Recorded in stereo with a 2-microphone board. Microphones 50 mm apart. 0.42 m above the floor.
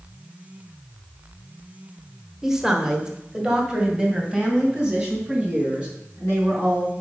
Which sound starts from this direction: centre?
A woman speaking, at 2.4 s.